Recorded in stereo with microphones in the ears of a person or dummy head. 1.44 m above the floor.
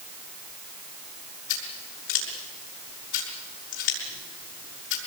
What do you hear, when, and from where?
1.5 s scissors: 80° left, 6.5 m